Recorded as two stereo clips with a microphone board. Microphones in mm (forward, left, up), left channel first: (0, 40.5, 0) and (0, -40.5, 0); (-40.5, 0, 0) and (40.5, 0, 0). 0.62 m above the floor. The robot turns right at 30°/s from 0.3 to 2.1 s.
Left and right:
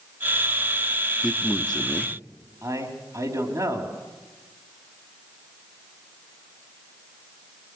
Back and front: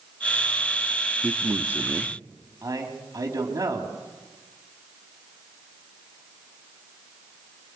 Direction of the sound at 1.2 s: 10° left.